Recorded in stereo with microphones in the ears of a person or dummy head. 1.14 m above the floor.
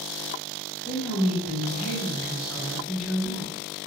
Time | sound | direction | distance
0.8 | a woman speaking | 5° left (ahead or behind) | 1.3 m